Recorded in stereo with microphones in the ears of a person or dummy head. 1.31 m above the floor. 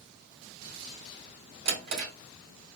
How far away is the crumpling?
I don't hear crumpling.